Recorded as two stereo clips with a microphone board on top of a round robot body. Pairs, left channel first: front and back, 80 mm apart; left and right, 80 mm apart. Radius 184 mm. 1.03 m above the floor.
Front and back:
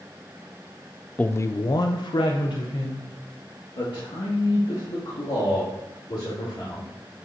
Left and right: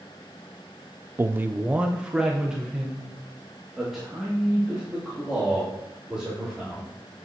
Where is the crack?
No crack in this recording.